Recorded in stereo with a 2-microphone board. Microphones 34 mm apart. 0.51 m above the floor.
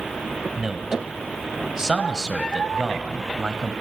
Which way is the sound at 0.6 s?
15° right (ahead or behind).